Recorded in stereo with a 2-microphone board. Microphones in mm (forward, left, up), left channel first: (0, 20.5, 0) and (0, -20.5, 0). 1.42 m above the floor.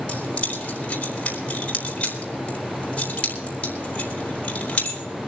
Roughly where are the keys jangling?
Left.